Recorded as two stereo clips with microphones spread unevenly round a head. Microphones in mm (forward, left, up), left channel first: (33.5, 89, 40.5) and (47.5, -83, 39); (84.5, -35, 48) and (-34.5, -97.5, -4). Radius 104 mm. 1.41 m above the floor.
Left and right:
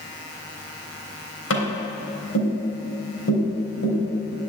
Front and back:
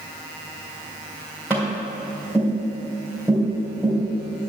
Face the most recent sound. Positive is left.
turn(degrees=105)